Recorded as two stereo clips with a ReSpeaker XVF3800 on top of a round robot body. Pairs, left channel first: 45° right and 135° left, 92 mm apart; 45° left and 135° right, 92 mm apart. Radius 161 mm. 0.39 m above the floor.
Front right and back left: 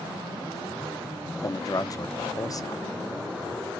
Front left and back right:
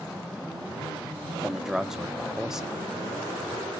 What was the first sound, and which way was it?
A man speaking, 55° right.